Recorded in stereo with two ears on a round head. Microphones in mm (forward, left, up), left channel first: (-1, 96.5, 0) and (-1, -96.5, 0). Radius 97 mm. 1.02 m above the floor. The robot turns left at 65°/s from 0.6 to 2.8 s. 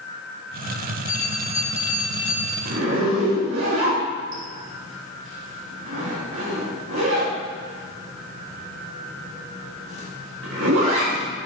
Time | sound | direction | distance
1.1 | a bell | 110° left | 1.4 m
2.6 | a zipper | 75° right (ahead or behind) | 2.0 m